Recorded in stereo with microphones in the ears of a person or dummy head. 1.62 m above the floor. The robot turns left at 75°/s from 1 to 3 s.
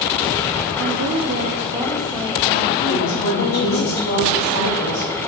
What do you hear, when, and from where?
0.8 s a woman speaking: 100° right, 0.5 m; by 3.9 s 110° left, 0.5 m
2.9 s a woman speaking: 45° left (ahead or behind), 2.5 m; by 5.1 s 55° left (ahead or behind), 2.5 m